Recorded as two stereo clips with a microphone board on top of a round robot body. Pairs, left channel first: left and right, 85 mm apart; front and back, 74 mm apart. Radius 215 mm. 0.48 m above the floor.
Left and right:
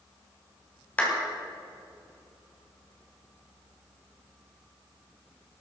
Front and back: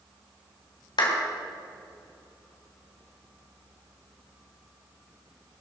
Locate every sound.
1.0 s a clap: 15° left, 3 m